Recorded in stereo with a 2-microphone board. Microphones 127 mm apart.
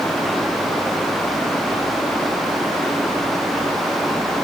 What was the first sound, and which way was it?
Only background noise.